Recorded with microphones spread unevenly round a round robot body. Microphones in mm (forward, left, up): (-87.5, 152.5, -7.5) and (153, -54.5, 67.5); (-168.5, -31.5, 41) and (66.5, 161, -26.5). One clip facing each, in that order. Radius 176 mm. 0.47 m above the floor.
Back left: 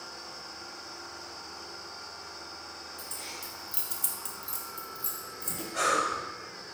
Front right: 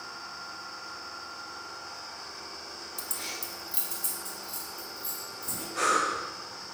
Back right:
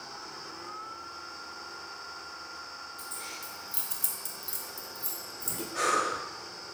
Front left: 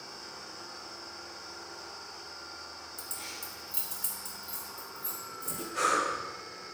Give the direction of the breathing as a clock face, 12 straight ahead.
8 o'clock.